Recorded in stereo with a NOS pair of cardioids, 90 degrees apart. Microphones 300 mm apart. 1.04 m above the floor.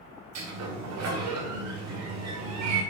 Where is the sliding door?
60° right, 2.5 m.